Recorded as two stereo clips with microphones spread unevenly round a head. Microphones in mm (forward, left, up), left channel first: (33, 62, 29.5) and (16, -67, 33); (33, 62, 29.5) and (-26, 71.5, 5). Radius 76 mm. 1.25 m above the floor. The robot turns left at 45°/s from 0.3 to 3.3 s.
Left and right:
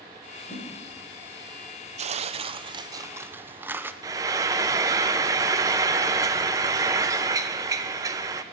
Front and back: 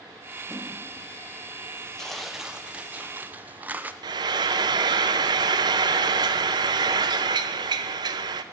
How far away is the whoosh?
About 2 m.